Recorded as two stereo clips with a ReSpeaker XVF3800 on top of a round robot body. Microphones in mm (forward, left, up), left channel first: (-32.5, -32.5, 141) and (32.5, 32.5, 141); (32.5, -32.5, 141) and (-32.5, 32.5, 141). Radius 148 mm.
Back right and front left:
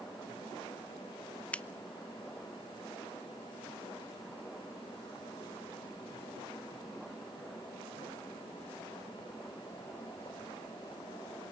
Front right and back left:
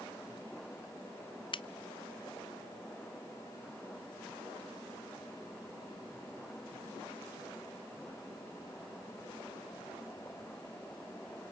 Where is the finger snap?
60° right, 0.8 m.